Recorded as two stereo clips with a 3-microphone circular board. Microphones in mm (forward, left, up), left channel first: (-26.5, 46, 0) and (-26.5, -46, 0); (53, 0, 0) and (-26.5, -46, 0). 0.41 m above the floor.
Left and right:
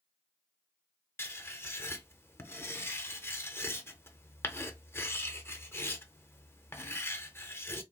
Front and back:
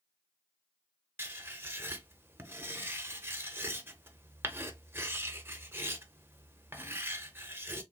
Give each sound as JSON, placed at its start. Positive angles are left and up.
{"t": 1.2, "sound": "writing", "azimuth_deg": 150, "distance_m": 0.5}